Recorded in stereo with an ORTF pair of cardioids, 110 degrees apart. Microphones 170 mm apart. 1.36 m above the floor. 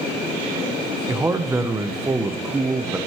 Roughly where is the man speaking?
Ahead.